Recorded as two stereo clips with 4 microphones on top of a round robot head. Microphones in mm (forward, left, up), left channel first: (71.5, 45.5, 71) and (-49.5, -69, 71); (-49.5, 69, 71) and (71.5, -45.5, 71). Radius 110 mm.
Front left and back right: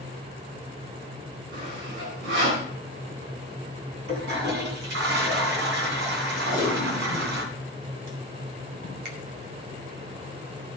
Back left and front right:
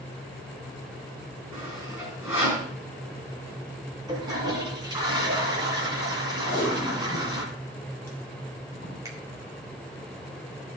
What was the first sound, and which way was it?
Sawing, 125° right.